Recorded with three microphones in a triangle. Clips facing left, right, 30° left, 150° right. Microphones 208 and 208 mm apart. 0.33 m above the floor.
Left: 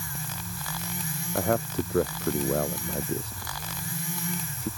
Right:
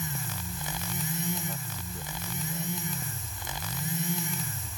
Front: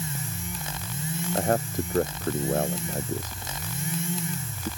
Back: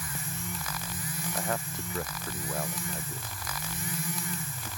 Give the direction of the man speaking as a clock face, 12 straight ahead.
9 o'clock.